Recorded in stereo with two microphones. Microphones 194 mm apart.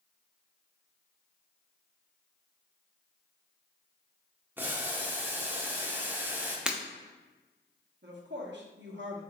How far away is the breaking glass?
About 0.5 m.